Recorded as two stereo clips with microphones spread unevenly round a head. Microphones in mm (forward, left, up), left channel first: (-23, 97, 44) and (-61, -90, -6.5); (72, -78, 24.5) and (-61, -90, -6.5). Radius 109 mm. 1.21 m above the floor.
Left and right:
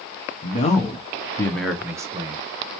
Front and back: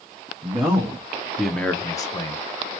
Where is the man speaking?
135° left, 1.0 m; by 2.4 s 60° right, 0.9 m.